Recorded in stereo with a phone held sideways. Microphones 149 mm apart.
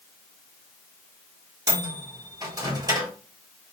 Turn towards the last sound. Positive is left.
turn(degrees=-25)  # may be behind; listen again after turning